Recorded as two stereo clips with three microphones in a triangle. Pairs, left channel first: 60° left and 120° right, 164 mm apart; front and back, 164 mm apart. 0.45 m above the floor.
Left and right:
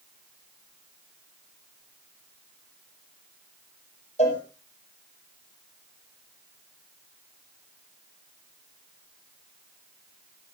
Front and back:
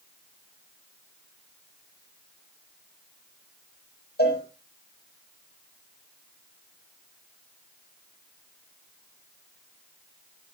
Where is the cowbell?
10° left, 5.5 m.